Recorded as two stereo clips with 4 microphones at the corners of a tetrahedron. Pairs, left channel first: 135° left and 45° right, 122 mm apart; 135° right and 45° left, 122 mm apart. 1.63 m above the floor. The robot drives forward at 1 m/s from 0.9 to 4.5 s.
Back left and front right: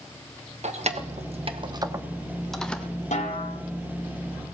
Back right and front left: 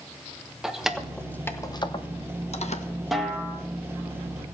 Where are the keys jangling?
40° right, 1.2 m; by 2.9 s 145° right, 1.4 m.